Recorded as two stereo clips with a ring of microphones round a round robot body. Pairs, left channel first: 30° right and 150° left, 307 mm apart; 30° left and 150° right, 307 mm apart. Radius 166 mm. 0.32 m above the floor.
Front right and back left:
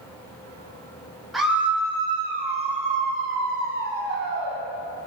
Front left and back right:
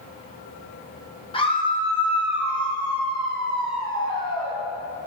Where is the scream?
60° left, 1.5 m; by 4.6 s 105° left, 2.5 m.